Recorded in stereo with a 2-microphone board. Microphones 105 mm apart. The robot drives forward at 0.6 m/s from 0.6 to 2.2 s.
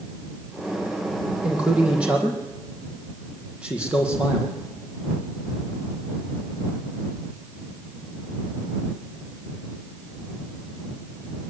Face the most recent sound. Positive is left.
turn(degrees=-10)  # may be behind; listen again after turning